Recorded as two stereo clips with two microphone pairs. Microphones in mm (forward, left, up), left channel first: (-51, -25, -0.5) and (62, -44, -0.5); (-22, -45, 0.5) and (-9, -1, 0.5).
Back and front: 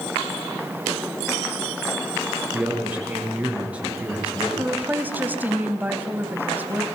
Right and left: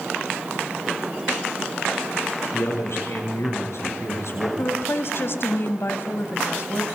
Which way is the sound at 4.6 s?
85° right.